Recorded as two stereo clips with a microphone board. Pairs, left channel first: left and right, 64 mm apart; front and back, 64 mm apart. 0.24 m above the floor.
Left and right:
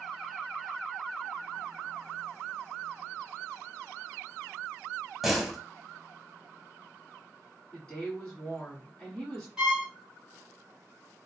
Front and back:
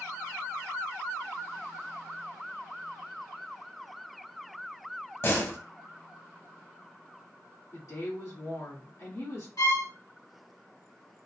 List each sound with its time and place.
5.2 s a door slam: 5° right, 0.8 m
7.7 s a woman speaking: 20° left, 1.8 m
9.6 s a violin: 10° right, 2.5 m